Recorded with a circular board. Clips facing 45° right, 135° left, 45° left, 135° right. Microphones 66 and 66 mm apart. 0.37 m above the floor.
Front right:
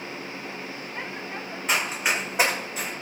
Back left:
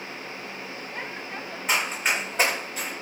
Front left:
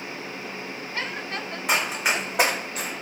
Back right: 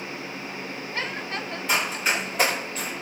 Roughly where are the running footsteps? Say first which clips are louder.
Even, front left 1 dB; ahead left.